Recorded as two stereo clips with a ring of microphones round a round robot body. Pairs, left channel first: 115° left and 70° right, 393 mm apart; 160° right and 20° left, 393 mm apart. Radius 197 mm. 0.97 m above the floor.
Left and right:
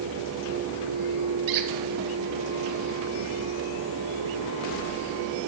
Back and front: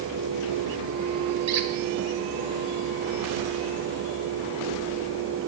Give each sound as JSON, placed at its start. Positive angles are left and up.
{"t": 1.5, "sound": "a squeak", "azimuth_deg": -30, "distance_m": 1.6}